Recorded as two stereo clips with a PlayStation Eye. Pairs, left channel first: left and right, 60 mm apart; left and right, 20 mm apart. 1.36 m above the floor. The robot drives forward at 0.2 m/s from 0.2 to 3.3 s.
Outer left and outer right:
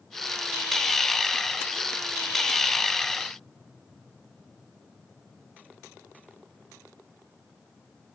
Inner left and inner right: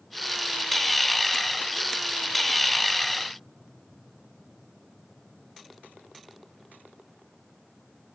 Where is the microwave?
I don't hear a microwave.